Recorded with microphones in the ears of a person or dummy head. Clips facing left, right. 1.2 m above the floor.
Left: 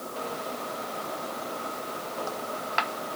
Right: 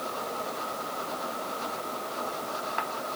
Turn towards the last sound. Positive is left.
No sound to turn to.